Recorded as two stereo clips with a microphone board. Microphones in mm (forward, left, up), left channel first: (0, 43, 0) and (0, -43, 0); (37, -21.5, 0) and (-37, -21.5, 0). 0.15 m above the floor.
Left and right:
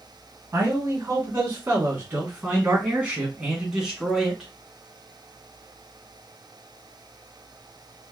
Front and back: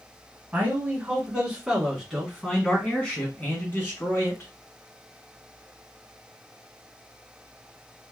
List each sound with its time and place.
0.5 s a man speaking: 125° right, 2.0 m; by 4.5 s straight ahead, 2.0 m